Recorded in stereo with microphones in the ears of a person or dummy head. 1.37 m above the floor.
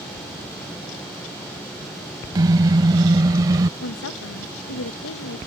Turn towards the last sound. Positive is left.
turn(degrees=70)  # may be behind; listen again after turning